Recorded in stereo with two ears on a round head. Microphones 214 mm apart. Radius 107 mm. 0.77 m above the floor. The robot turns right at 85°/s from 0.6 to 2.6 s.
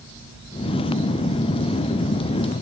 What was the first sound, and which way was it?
Only background noise.